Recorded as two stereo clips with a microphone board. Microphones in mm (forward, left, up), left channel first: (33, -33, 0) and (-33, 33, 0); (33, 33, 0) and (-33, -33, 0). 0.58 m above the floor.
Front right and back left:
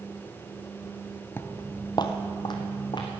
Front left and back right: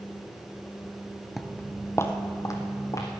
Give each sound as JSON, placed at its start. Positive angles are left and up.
{"t": 1.4, "sound": "footsteps", "azimuth_deg": -55, "distance_m": 0.5}